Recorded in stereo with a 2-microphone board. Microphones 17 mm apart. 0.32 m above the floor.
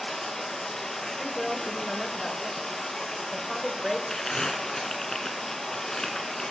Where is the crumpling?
35° left (ahead or behind), 0.9 m.